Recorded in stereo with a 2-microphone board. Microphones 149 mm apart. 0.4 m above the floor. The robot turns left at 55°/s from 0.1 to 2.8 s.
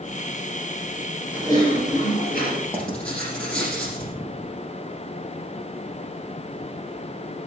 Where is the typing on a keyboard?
165° left, 5.5 m; by 2.6 s 95° left, 5.5 m.